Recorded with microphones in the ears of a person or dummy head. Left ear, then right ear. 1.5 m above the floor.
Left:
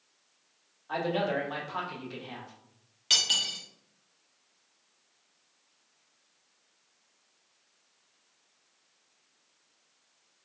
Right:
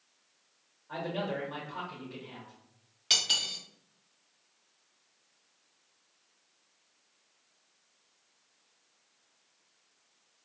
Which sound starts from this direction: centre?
Cutlery clinking, at 3.1 s.